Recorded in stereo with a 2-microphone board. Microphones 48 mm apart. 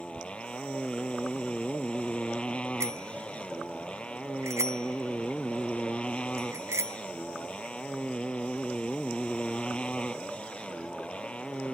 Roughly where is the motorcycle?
Left.